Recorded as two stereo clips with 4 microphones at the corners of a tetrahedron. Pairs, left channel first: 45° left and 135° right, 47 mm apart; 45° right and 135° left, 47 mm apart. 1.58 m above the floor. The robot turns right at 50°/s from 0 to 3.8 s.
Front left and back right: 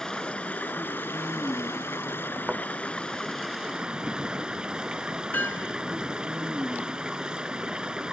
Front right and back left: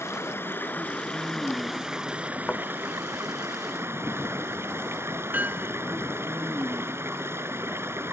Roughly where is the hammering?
Left.